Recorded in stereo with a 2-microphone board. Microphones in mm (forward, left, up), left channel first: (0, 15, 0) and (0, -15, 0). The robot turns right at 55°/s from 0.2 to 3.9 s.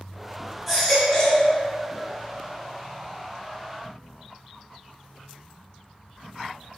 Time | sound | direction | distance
0.7 | a baby crying | 5° right | 1.3 m